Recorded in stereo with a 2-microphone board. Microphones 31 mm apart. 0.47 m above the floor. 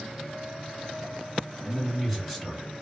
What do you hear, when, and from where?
1.6 s a man speaking: 25° left (ahead or behind), 1.7 m; by 2.7 s 5° left (ahead or behind), 1.9 m